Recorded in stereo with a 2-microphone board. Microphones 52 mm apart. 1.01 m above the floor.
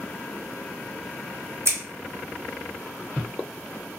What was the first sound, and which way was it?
Scissors, 55° right (ahead or behind).